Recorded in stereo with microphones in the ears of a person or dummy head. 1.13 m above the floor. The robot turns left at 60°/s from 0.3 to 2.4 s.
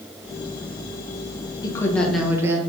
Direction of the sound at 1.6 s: 30° left.